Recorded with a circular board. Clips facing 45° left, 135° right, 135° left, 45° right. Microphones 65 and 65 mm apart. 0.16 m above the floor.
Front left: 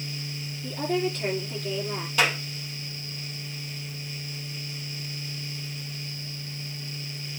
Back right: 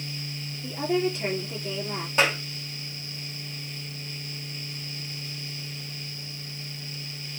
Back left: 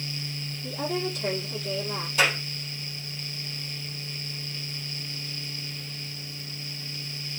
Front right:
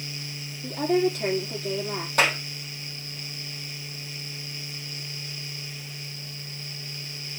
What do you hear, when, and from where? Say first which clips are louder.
0.6 s a woman speaking: back right 1 dB, front right 7 dB; 60° right, 4.5 m
2.2 s a clap: back right 1 dB, front right 1 dB; 75° right, 4 m